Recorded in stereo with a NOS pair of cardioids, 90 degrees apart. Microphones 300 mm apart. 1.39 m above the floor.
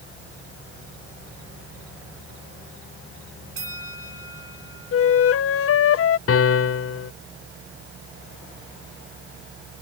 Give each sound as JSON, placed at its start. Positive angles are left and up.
{"t": 3.6, "sound": "a bell", "azimuth_deg": -45}
{"t": 4.9, "sound": "a flute", "azimuth_deg": 50}
{"t": 6.3, "sound": "a piano", "azimuth_deg": 50}